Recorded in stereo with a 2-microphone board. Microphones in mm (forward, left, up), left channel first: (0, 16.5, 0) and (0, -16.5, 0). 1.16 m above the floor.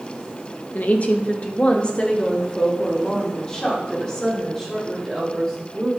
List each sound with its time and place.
0.7 s a woman speaking: 55° left (ahead or behind), 1.3 m; by 5.9 s 15° left (ahead or behind), 5.5 m